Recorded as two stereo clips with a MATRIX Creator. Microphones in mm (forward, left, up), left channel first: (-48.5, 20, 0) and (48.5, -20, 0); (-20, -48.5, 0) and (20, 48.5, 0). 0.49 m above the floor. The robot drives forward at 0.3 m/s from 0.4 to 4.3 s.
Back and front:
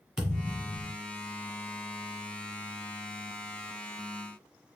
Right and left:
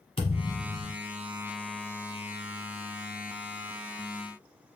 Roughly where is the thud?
Right.